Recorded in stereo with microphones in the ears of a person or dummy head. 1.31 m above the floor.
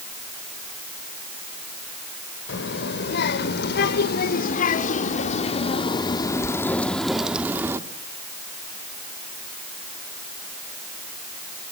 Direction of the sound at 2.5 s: 70° left (ahead or behind).